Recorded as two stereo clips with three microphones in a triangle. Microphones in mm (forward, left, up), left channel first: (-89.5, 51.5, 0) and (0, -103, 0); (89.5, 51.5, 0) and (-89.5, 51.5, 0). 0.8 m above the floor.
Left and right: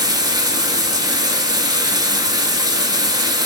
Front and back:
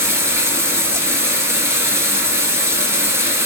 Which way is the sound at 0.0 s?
115° right.